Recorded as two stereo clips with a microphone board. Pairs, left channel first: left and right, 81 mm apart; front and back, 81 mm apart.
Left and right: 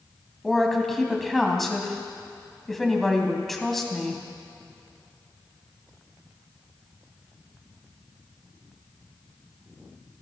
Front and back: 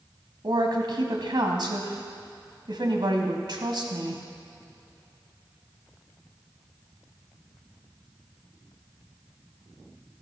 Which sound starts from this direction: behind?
A woman speaking, at 0.4 s.